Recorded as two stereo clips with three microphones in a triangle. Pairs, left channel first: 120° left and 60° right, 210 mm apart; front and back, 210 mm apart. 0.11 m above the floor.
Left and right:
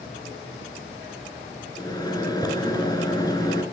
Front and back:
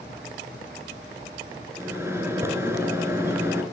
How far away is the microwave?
About 1.4 m.